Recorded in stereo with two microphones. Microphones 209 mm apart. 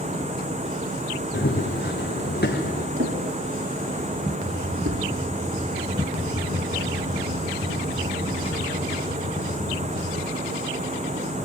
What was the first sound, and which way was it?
Running footsteps, 50° left (ahead or behind).